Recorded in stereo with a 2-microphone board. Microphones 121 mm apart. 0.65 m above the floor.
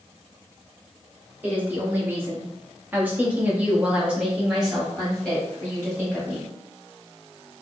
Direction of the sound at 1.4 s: 15° right (ahead or behind).